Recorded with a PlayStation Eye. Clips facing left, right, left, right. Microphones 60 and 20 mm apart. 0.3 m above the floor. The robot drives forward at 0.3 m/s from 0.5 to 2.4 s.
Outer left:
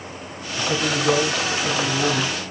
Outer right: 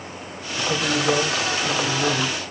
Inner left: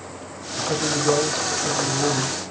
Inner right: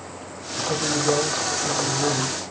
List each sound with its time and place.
0.6 s a man speaking: 40° left (ahead or behind), 2.5 m; by 2.4 s 45° left (ahead or behind), 2 m